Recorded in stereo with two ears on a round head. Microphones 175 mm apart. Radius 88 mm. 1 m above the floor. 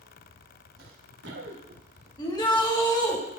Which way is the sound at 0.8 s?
50° right (ahead or behind).